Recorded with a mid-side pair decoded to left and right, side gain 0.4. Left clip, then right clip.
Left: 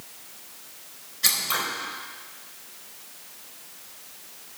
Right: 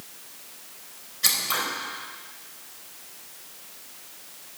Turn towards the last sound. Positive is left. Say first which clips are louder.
# even
turn(degrees=0)